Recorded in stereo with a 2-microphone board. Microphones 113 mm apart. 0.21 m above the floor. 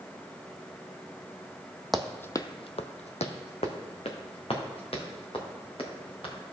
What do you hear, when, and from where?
1.9 s running footsteps: centre (ahead or behind), 0.6 m; by 6.3 s 50° left (ahead or behind), 3.5 m